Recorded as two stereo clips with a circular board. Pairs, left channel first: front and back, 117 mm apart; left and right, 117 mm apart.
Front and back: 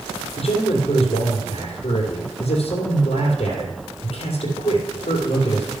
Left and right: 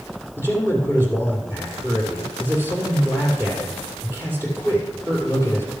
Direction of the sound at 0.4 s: 20° right.